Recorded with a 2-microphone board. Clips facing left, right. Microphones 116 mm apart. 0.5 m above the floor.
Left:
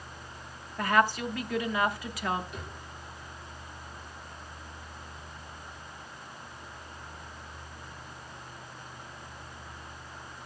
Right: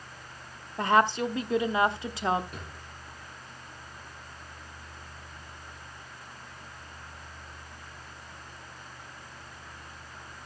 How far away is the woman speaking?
About 0.7 m.